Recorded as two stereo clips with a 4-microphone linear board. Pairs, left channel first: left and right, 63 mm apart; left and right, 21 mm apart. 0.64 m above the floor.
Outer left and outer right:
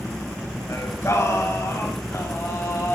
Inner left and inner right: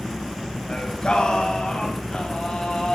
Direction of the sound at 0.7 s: 45° left (ahead or behind).